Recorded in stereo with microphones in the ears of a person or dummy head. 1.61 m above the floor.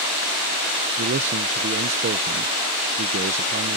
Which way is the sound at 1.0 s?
40° right (ahead or behind).